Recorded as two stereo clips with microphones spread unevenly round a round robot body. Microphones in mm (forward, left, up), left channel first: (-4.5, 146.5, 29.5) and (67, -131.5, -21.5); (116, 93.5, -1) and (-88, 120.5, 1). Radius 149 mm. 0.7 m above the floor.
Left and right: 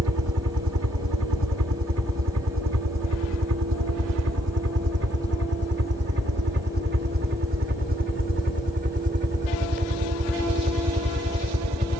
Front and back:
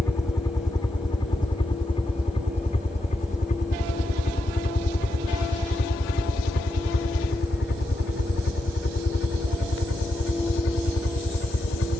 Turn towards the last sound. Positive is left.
turn(degrees=-15)